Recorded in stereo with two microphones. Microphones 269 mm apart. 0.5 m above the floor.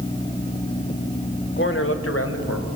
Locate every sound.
1.6 s a man speaking: 45° left (ahead or behind), 1.8 m; by 2.7 s 70° left (ahead or behind), 3 m